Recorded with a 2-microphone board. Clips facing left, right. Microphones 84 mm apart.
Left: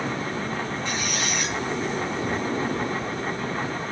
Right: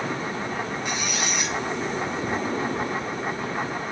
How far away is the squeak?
About 3.5 m.